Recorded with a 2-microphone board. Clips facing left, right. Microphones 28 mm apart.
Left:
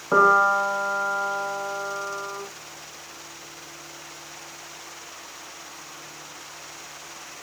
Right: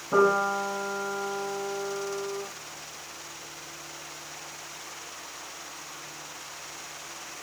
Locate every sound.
0.1 s a piano: 70° left (ahead or behind), 7.5 m